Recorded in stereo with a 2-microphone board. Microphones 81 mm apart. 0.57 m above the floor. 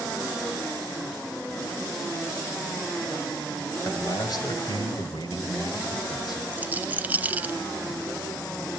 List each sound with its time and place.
3.8 s a man speaking: 45° left (ahead or behind), 3.5 m; by 6.4 s 55° left (ahead or behind), 3.5 m
6.5 s a rattle: 20° right (ahead or behind), 0.5 m